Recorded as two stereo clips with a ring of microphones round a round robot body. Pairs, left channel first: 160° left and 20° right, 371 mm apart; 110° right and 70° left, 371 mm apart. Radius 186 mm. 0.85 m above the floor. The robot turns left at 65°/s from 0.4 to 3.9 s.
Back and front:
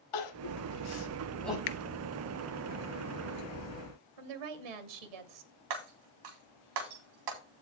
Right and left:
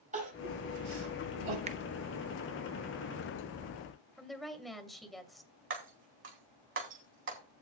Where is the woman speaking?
25° right, 2.5 m.